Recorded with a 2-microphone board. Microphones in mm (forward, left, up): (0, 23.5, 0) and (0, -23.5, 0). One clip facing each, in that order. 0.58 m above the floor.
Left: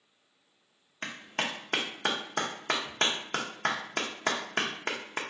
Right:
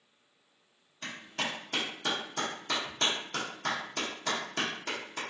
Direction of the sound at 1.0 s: 50° left (ahead or behind).